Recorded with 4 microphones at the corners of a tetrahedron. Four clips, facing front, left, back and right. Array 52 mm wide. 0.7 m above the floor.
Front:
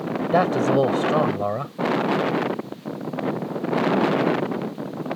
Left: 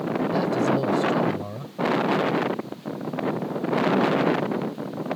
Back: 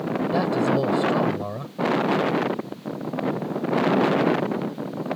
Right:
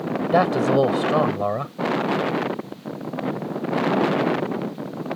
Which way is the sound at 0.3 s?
55° right.